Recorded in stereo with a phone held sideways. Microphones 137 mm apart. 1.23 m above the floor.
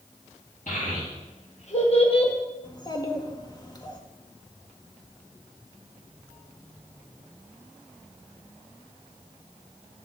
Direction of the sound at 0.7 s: 70° left (ahead or behind).